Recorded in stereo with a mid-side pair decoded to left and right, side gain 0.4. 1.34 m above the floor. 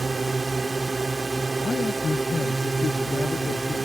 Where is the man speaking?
40° left.